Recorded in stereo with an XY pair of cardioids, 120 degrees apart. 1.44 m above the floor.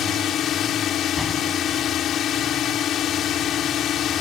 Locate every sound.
0.0 s a drone: 55° left
1.2 s a door slam: 10° left